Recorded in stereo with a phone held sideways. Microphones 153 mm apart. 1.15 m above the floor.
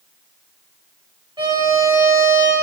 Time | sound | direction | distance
1.4 | a violin | 30° right (ahead or behind) | 4.5 m